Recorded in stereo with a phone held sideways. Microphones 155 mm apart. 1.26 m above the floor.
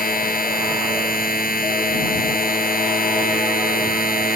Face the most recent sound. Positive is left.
turn(degrees=70)  # may be behind; listen again after turning